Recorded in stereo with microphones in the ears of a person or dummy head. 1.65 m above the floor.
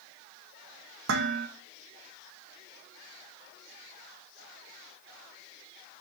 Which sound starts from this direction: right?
Dishes clattering, at 1.1 s.